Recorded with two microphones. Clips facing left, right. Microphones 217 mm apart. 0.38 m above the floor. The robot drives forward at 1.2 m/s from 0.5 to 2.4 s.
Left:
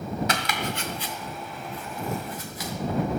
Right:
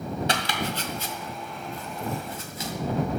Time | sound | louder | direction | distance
0.3 | chopping | even | 35° right (ahead or behind) | 1.4 m